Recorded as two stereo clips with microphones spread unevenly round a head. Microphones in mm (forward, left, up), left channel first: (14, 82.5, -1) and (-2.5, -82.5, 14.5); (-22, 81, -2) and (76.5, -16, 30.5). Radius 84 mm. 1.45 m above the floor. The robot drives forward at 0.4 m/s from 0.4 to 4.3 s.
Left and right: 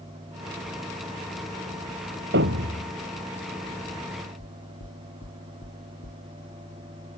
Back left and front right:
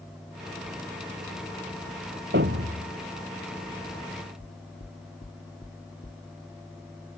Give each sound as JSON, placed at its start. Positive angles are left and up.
{"t": 2.3, "sound": "a thud", "azimuth_deg": -75}
{"t": 4.4, "sound": "knocking", "azimuth_deg": 90}